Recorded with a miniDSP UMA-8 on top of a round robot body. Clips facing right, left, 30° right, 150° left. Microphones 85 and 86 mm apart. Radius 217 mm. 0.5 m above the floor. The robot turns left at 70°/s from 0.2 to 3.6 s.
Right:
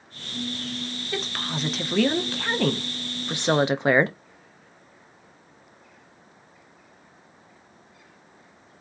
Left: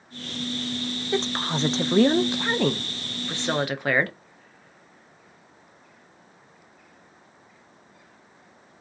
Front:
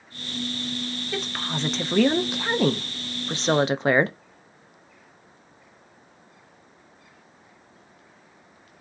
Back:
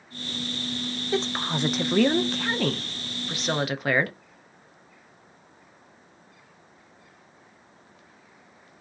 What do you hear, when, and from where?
1.1 s a woman speaking: 125° left, 0.6 m; by 4.2 s 50° right, 0.6 m